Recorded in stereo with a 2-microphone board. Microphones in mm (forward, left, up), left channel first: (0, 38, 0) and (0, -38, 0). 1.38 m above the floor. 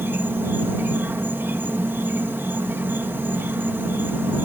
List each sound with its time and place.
0.0 s an insect: 30° right (ahead or behind)